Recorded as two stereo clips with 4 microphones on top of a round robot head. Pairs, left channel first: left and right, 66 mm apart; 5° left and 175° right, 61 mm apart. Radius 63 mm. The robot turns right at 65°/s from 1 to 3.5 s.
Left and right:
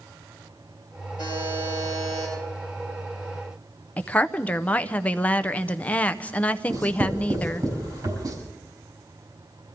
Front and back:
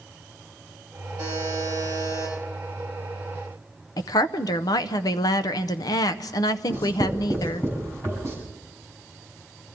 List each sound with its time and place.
1.2 s a buzzer: 170° right, 9 m; by 2.3 s 95° right, 9 m
4.0 s a woman speaking: 25° left, 0.6 m
6.7 s writing: 55° right, 5.5 m